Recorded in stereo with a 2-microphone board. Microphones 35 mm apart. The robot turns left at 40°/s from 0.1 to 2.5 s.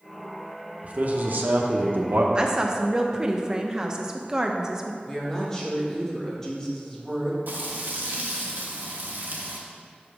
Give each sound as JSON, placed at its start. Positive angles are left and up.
{"t": 0.8, "sound": "a man speaking", "azimuth_deg": -45, "distance_m": 1.0}
{"t": 2.4, "sound": "a woman speaking", "side_deg": -25, "distance_m": 0.8}
{"t": 5.1, "sound": "a woman speaking", "side_deg": 15, "distance_m": 1.9}
{"t": 7.5, "sound": "frying", "side_deg": -65, "distance_m": 1.3}